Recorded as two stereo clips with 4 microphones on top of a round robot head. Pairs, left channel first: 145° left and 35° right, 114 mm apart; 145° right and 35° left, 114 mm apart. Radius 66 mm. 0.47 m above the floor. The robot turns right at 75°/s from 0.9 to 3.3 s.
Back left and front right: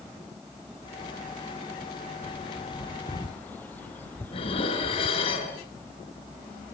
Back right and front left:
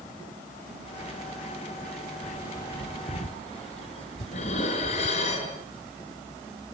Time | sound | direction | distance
2.2 | a bird | 135° left | 1.9 m
4.3 | dishes clattering | 175° right | 5.5 m